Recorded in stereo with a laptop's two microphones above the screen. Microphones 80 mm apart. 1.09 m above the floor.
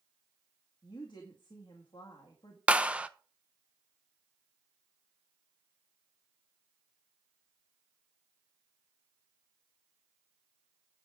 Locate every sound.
0.8 s a woman speaking: 75° left (ahead or behind), 1.8 m
2.7 s a clap: 15° right (ahead or behind), 0.7 m